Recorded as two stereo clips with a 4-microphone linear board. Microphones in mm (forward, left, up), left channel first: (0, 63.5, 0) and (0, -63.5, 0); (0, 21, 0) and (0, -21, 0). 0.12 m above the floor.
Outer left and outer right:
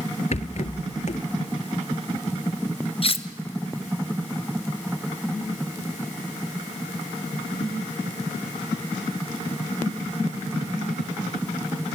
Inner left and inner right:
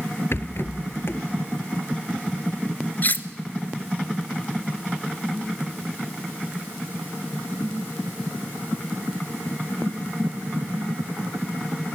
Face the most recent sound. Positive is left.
turn(degrees=45)  # may be behind; listen again after turning